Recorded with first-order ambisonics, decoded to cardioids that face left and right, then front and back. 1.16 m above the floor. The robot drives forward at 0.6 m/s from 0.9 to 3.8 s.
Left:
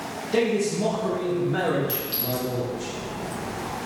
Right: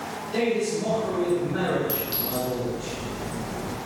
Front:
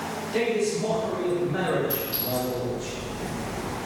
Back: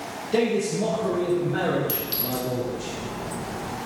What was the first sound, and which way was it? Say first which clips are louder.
A man speaking: left 2 dB, back 2 dB; 145° left.